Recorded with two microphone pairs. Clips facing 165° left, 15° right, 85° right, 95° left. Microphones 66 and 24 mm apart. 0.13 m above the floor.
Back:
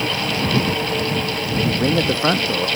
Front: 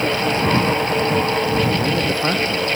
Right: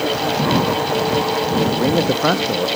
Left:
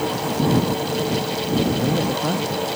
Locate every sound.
1.6 s a man speaking: 130° right; by 2.7 s 115° right